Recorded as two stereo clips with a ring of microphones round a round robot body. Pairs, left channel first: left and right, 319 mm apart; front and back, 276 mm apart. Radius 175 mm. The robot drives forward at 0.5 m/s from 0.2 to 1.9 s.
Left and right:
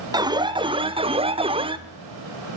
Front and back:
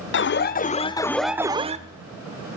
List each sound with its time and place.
0.1 s an alarm: 15° right, 0.8 m; by 1.8 s 150° right, 0.7 m